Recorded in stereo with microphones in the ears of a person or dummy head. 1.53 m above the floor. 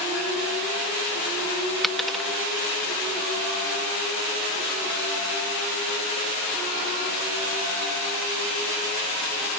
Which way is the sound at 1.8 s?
5° right (ahead or behind).